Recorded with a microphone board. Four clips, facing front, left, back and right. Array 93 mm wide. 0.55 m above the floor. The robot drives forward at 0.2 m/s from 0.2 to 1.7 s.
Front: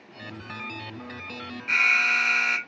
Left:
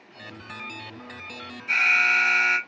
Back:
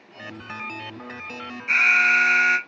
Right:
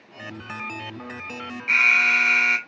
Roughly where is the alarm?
Right.